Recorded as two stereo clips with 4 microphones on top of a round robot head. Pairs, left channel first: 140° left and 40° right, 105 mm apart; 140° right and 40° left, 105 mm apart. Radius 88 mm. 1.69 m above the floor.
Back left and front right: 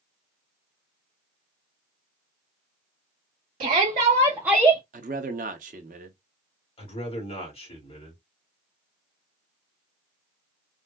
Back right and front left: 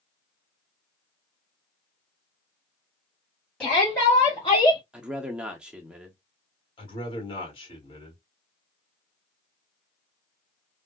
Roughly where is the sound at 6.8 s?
Behind.